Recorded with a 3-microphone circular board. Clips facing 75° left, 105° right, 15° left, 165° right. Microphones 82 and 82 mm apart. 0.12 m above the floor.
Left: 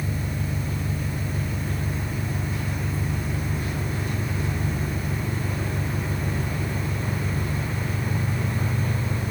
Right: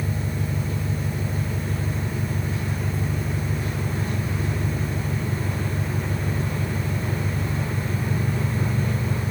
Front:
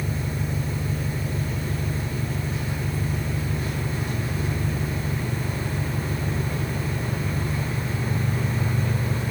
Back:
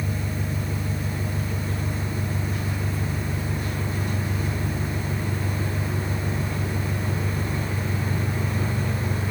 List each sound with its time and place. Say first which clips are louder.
0.0 s an engine running: right 1 dB, front 1 dB; 50° right, 7.5 m